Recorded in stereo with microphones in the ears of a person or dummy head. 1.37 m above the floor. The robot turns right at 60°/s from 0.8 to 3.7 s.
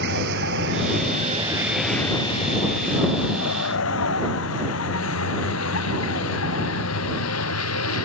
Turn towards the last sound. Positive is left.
turn(degrees=75)  # may be behind; listen again after turning